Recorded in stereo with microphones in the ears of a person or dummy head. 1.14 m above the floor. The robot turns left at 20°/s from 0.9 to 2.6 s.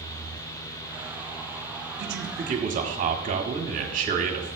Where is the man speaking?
55° right (ahead or behind), 1.5 m; by 4.6 s 45° right (ahead or behind), 1.5 m.